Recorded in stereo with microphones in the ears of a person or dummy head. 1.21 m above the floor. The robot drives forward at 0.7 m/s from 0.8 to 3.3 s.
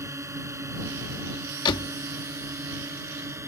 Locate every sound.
0.0 s a drone: 15° right (ahead or behind)
1.6 s a door slam: 25° left (ahead or behind); by 1.9 s 30° left (ahead or behind)